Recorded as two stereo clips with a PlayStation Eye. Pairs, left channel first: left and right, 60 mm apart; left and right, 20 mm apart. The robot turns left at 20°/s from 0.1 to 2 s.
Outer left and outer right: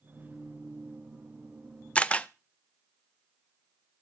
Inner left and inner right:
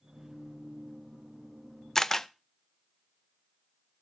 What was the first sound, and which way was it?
A camera shutter, 20° left (ahead or behind).